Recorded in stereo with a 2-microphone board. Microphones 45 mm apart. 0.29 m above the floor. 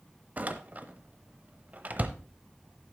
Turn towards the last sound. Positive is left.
turn(degrees=-35)  # may be behind; listen again after turning